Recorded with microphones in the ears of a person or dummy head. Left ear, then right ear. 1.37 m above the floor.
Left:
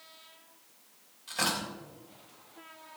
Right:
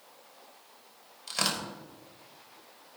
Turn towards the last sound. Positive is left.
turn(degrees=-35)  # may be behind; listen again after turning